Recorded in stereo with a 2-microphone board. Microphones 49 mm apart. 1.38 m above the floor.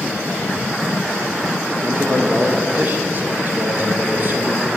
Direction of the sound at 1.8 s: 40° right (ahead or behind).